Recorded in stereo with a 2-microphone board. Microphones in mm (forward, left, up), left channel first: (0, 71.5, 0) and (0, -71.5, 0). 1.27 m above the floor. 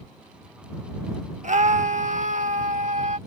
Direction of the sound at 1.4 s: 55° right (ahead or behind).